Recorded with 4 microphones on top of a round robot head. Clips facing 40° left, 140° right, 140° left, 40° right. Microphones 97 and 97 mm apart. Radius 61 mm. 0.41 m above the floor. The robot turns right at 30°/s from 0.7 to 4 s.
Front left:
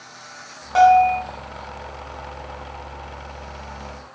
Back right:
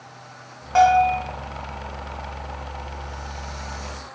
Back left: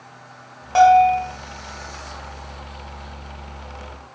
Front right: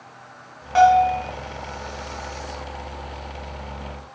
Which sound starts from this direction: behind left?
A bell, at 0.8 s.